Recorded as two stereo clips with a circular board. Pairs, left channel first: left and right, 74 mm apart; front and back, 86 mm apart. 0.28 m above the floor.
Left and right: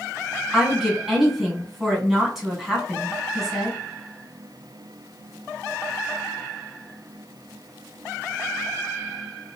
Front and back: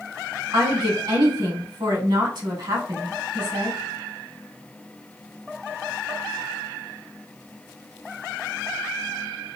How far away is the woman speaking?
About 2 m.